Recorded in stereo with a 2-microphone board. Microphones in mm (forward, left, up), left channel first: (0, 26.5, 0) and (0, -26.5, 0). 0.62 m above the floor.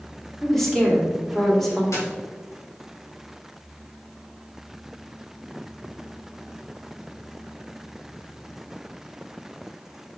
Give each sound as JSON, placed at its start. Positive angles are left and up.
{"t": 0.4, "sound": "a woman speaking", "side_deg": 5, "distance_m": 2.0}
{"t": 1.9, "sound": "a dropped coin", "side_deg": 75, "distance_m": 3.0}